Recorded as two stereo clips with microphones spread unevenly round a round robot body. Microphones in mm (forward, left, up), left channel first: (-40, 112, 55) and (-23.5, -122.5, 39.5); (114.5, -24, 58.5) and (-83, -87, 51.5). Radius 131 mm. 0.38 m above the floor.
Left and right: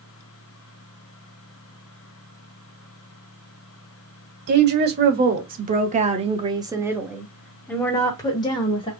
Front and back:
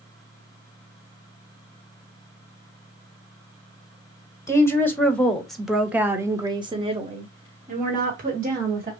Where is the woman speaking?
60° right, 1.5 m; by 8.9 s 160° left, 1.5 m.